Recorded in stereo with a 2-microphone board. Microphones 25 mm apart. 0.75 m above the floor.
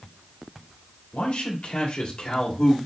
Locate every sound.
1.1 s a man speaking: 65° left (ahead or behind), 1.9 m; by 2.8 s 35° left (ahead or behind), 1.6 m